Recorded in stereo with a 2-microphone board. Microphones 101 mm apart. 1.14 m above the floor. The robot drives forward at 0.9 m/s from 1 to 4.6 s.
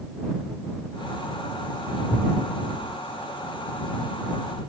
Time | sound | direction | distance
2.1 | a thud | 20° right (ahead or behind) | 4 m